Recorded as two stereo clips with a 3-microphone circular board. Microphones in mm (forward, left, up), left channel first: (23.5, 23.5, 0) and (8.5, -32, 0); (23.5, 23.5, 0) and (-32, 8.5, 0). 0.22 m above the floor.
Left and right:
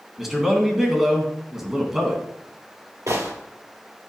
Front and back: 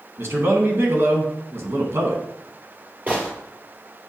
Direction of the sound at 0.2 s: 175° left.